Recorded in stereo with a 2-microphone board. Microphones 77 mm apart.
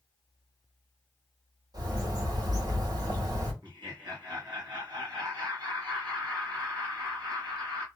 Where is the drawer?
No drawer in this recording.